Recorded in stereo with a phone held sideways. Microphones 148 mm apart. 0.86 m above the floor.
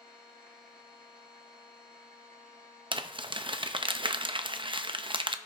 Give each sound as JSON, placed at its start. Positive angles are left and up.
{"t": 0.0, "sound": "a machine running", "side_deg": -70, "distance_m": 5.0}
{"t": 2.9, "sound": "crumpling", "side_deg": -35, "distance_m": 0.5}